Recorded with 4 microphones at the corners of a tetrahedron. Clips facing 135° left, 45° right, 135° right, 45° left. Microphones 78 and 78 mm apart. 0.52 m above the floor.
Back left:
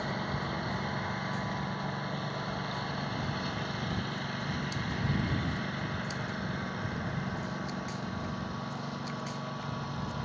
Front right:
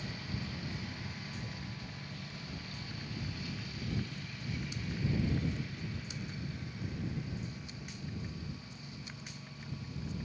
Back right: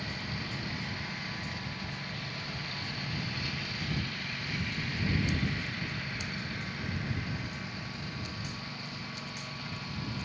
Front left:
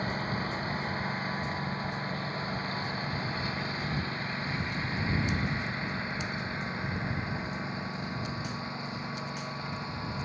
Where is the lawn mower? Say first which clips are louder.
Back left 8 dB, front left 6 dB; 100° left; by 10.3 s 110° left.